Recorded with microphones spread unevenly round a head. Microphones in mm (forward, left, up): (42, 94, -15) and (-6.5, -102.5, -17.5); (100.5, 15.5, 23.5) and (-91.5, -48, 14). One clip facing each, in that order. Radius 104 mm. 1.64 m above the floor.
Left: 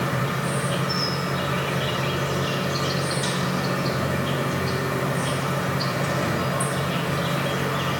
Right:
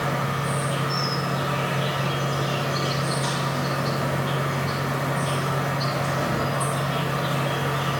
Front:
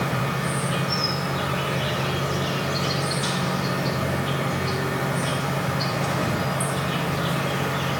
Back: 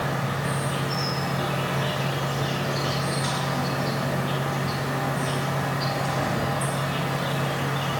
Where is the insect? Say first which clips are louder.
Left 1 dB, front 2 dB; 20° left, 2 m.